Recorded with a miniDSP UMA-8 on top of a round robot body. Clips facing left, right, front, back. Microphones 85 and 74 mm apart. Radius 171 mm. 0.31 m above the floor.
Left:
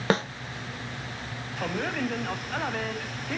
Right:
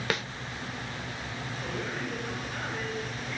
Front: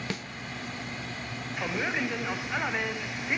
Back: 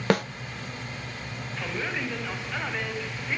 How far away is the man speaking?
About 3.5 m.